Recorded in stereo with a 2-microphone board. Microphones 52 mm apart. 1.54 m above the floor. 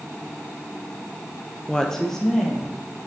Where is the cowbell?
I don't hear a cowbell.